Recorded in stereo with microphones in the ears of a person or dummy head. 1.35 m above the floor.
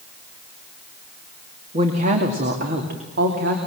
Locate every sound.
1.7 s a woman speaking: 40° right (ahead or behind), 2.5 m; by 3.6 s 60° right (ahead or behind), 3 m